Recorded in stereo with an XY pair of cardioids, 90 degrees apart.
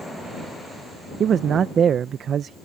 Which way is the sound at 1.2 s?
65° right.